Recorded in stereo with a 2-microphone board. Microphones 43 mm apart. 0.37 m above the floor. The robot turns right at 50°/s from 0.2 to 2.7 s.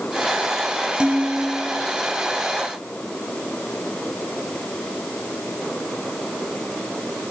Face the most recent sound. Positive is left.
turn(degrees=60)